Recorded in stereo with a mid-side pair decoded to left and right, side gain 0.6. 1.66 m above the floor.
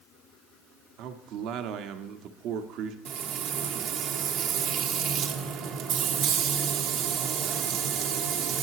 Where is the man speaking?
70° right, 0.9 m.